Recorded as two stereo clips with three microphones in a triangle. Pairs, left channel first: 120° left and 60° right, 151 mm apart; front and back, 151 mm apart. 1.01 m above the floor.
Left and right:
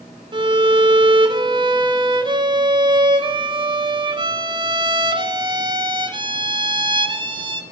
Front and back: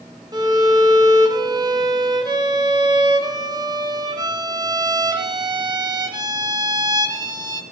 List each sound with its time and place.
0.3 s a violin: 120° right, 0.5 m